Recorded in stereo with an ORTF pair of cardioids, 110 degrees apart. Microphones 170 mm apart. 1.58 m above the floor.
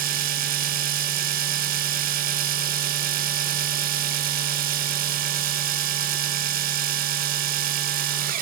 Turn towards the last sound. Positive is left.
turn(degrees=-60)